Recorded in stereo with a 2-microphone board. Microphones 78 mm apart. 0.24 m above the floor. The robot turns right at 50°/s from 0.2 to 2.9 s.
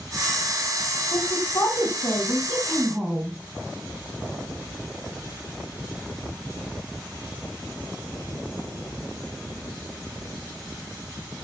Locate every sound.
1.1 s a woman speaking: 100° left, 1.8 m; by 3.4 s 170° right, 1.8 m